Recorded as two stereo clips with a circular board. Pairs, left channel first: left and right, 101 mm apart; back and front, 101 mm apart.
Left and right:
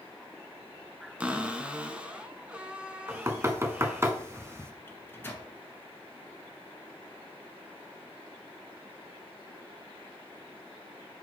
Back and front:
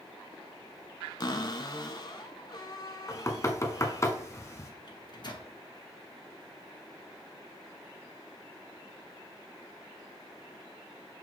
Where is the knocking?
140° right, 0.9 m.